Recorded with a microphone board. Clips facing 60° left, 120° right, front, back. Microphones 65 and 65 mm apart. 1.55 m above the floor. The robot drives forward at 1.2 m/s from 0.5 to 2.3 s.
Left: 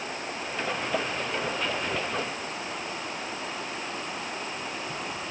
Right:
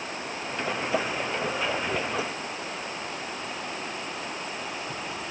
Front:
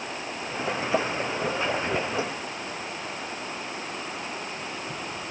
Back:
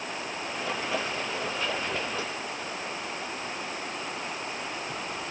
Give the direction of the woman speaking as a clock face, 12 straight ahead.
I don't hear a woman speaking.